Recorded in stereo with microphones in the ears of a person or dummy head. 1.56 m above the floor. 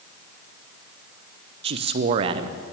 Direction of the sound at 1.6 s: 40° right (ahead or behind).